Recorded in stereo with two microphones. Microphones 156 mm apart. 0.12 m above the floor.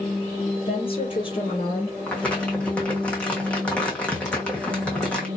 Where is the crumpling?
5° left (ahead or behind), 1.2 m.